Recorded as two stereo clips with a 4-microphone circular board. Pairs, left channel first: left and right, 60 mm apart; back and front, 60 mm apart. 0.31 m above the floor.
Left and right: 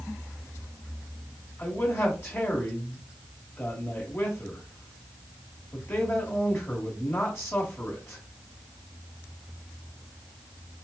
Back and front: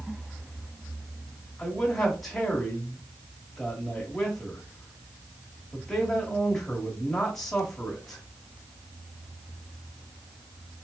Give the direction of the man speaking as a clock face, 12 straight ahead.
9 o'clock.